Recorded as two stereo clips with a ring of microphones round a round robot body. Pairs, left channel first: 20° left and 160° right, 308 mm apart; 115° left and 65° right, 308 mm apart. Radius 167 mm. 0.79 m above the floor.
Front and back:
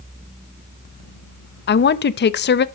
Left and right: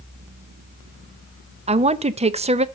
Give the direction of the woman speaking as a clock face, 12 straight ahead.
12 o'clock.